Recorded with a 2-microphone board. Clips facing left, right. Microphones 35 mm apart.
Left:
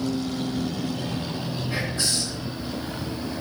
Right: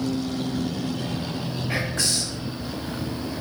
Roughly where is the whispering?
Right.